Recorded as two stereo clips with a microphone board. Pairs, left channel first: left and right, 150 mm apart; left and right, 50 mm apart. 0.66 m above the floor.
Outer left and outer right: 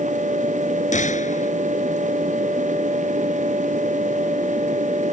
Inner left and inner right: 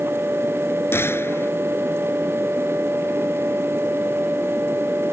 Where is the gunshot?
55° left (ahead or behind).